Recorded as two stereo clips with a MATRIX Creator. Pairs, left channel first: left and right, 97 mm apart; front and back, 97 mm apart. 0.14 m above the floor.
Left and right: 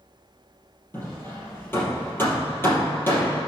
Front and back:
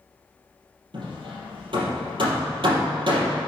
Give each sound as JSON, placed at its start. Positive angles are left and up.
{"t": 0.9, "sound": "hammering", "azimuth_deg": 155, "distance_m": 3.5}